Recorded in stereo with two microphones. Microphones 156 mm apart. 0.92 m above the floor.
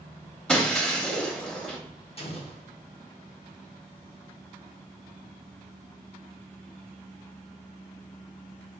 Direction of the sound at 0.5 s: 5° left (ahead or behind).